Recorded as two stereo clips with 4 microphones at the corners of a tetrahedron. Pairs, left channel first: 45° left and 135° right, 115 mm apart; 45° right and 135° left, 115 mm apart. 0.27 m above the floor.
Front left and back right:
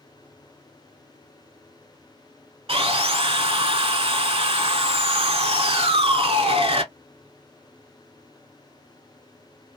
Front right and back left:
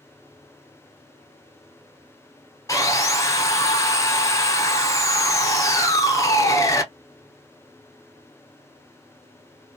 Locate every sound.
2.7 s sawing: 105° right, 0.6 m